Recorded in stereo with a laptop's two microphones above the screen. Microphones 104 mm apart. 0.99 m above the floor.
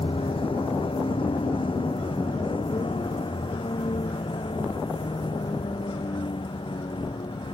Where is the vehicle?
60° left (ahead or behind); by 7.5 s 55° left (ahead or behind).